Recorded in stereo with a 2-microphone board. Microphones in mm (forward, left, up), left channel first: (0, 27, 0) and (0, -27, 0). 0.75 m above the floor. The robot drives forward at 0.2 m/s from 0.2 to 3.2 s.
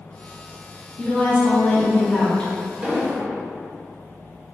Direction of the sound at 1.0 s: 20° left (ahead or behind).